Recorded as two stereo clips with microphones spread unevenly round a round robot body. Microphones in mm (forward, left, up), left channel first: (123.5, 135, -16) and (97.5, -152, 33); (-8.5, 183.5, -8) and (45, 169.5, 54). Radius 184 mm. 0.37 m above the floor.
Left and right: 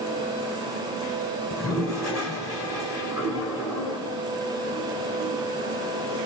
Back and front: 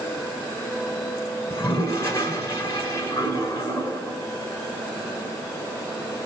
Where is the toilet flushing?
Straight behind, 2.0 m.